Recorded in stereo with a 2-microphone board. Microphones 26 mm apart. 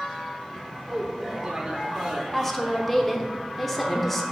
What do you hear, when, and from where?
0.9 s a man speaking: 30° right (ahead or behind), 1.2 m; by 2.2 s 40° right (ahead or behind), 1.1 m
2.3 s a woman speaking: 10° left (ahead or behind), 0.9 m